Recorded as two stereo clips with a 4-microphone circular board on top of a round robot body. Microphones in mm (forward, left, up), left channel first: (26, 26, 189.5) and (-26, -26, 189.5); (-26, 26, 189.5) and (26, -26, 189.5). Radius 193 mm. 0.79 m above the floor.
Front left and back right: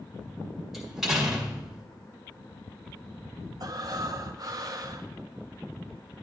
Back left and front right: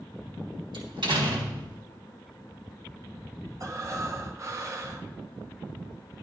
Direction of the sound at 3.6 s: 95° right.